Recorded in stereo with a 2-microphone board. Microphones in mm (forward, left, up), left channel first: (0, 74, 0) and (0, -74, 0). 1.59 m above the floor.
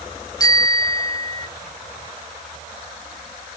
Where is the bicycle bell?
25° left (ahead or behind), 2 m.